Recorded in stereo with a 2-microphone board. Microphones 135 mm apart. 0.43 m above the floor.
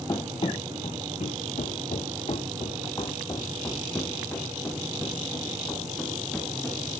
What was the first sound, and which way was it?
Running footsteps, 30° left (ahead or behind).